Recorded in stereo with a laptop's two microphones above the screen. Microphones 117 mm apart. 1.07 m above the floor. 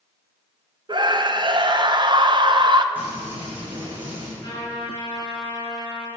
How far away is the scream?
About 0.6 m.